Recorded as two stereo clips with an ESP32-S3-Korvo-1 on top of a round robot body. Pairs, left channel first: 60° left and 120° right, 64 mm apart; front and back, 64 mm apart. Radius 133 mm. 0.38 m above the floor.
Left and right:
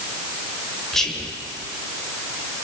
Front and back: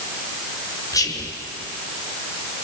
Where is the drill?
I don't hear a drill.